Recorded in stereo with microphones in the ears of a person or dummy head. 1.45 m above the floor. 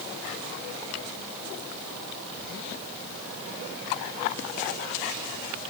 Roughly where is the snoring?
I don't hear snoring.